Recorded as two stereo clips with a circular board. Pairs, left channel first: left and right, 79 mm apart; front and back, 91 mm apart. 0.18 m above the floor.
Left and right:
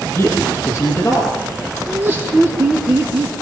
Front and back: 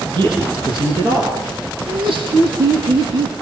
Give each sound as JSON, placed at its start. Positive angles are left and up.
{"t": 0.1, "sound": "a man speaking", "azimuth_deg": 150, "distance_m": 8.0}
{"t": 1.9, "sound": "laughter", "azimuth_deg": -155, "distance_m": 7.0}